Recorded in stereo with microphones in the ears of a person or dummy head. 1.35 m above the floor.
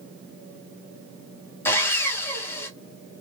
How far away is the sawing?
About 0.9 m.